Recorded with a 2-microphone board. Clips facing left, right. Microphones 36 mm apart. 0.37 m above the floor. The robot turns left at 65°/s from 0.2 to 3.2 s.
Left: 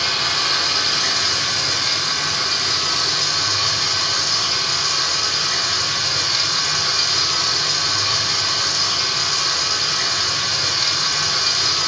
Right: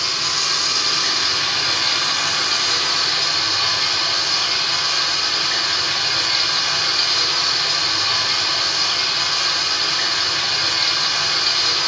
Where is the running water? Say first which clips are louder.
Left 2 dB; 55° left, 2 m; by 11.9 s 140° right, 2 m.